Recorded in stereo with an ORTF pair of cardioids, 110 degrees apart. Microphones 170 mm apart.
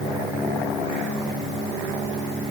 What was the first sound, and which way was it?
Only background noise.